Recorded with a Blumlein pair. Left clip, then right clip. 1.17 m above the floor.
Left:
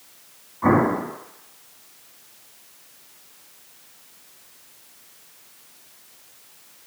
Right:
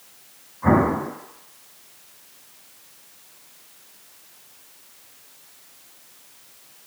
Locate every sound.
0.6 s an explosion: 35° left, 1.5 m